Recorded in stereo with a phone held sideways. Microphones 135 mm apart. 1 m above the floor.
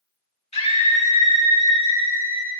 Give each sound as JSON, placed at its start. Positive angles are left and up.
{"t": 0.5, "sound": "a scream", "side_deg": 55, "distance_m": 2.5}